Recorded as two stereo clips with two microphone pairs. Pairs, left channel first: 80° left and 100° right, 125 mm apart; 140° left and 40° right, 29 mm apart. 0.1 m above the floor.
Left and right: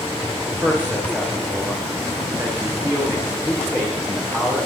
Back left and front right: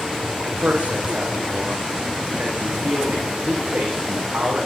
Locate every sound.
0.5 s a man speaking: 25° right, 9 m